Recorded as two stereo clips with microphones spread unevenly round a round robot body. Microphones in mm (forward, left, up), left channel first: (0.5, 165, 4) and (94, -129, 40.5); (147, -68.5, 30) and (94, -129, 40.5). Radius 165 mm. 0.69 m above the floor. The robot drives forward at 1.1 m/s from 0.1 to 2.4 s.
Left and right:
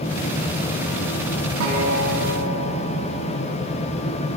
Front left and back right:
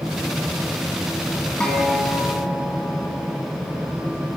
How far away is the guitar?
About 6.5 m.